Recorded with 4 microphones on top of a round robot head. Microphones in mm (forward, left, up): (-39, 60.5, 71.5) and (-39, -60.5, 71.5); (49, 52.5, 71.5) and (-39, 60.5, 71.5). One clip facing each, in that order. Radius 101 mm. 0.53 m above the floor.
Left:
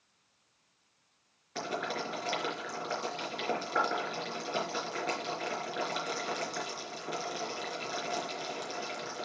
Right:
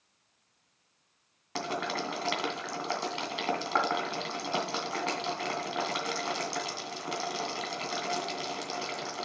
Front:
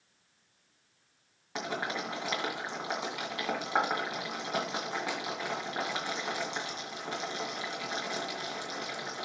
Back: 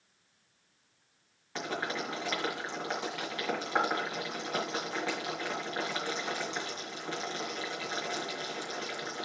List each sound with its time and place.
1.6 s boiling: 85° right, 2 m